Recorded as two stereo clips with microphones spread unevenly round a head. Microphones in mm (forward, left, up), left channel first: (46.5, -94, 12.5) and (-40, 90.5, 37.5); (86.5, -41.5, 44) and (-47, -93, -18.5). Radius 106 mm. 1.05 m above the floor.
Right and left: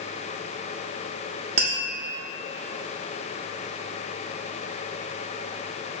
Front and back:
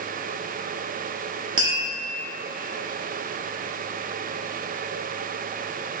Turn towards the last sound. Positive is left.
turn(degrees=175)